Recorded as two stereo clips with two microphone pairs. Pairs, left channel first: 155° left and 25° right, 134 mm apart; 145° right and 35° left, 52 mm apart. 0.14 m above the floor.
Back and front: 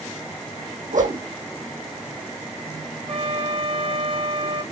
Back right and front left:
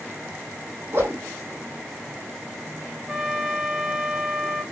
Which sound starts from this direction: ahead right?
A trumpet, at 3.1 s.